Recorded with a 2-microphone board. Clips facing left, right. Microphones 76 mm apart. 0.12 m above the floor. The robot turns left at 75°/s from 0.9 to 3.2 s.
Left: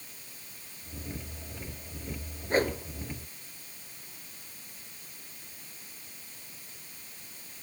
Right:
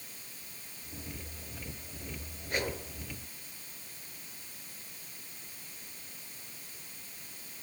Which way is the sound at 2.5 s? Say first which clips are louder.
Left 8 dB; 35° left (ahead or behind).